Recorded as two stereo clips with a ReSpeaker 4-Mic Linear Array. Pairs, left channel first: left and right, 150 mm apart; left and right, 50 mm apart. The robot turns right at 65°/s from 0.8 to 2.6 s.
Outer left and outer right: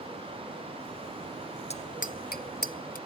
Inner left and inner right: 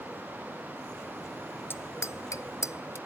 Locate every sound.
1.7 s a bicycle bell: 45° left (ahead or behind); by 3.0 s 75° left (ahead or behind)